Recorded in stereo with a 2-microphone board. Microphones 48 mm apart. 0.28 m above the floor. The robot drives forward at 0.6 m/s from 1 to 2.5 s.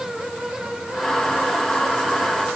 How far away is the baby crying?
I don't hear a baby crying.